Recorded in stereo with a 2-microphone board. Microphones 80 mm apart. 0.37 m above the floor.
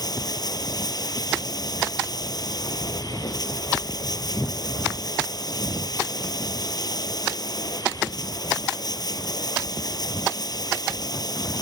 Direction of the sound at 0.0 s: 50° left (ahead or behind).